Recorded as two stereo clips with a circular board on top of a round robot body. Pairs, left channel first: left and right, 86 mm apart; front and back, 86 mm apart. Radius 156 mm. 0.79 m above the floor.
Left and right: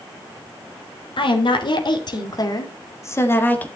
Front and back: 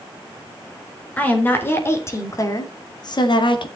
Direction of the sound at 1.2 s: 70° left.